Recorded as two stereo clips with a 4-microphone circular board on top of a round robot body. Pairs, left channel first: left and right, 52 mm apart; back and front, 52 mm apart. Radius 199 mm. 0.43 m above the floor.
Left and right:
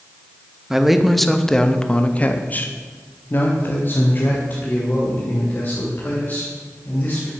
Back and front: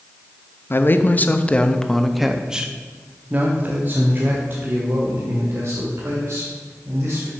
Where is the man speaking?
170° right, 1.1 m; by 7.3 s 35° left, 3 m.